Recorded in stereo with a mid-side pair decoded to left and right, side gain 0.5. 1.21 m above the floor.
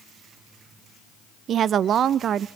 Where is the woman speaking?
55° right, 0.5 m.